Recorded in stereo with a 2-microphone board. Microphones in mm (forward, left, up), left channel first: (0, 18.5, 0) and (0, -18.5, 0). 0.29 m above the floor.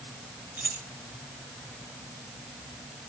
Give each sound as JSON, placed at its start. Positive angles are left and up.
{"t": 0.6, "sound": "keys jangling", "side_deg": -65, "distance_m": 2.0}